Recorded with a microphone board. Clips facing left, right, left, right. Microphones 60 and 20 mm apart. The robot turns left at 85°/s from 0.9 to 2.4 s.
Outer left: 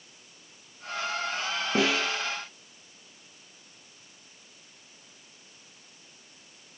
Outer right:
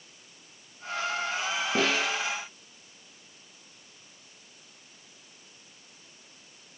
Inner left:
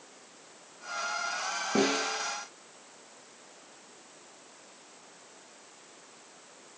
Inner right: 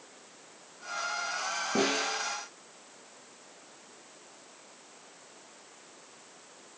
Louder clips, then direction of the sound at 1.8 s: Outer left 1 dB, inner left 1 dB; 15° left.